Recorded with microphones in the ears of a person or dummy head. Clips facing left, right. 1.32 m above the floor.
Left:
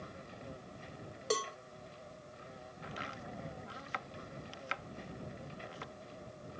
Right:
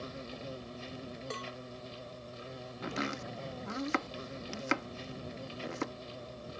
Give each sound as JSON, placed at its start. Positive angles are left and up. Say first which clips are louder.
{"t": 0.0, "sound": "an insect", "louder": "right 6 dB", "side_deg": -40}
{"t": 1.3, "sound": "a cowbell", "louder": "left 10 dB", "side_deg": 45}
{"t": 2.8, "sound": "chopping", "louder": "right 10 dB", "side_deg": -60}